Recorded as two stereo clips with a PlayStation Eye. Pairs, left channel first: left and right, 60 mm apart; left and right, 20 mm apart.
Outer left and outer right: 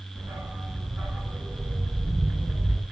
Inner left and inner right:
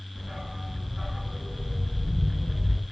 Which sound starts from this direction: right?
A dog barking, at 0.1 s.